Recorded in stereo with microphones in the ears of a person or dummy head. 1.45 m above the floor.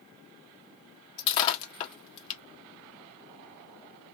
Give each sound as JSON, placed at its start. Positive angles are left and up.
{"t": 1.2, "sound": "breaking glass", "side_deg": 30, "distance_m": 1.5}